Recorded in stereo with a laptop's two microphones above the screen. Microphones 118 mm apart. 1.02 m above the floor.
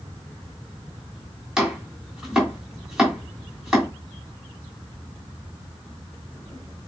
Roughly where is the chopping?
Centre.